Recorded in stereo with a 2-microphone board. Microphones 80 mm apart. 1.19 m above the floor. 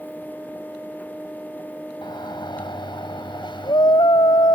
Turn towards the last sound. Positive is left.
turn(degrees=75)  # may be behind; listen again after turning